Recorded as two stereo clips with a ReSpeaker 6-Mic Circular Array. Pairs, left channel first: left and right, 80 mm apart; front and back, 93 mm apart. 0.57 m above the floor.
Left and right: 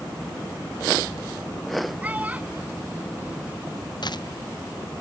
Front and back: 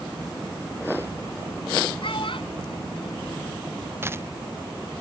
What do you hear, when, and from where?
2.0 s a child speaking: 20° right
4.0 s a dropped coin: 115° left